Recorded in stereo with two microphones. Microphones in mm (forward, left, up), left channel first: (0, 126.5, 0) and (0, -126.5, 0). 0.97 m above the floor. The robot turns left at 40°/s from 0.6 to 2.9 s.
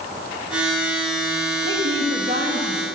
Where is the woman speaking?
105° right, 1.4 m; by 2.9 s 155° right, 1.4 m.